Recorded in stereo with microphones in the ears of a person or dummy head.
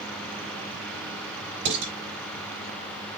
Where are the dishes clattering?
55° right (ahead or behind), 6 m.